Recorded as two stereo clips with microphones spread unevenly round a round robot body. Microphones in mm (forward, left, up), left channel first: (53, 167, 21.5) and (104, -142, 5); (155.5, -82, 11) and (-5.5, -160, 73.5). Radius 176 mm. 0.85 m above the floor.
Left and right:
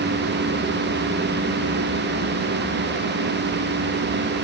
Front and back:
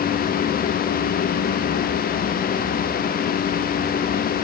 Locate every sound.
Only background noise.